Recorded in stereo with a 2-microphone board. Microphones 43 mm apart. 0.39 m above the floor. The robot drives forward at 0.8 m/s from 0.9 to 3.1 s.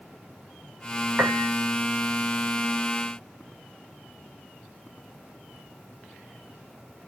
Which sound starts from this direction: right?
A piano, at 1.2 s.